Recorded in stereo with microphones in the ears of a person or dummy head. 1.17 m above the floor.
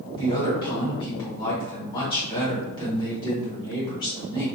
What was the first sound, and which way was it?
A woman speaking, 25° left (ahead or behind).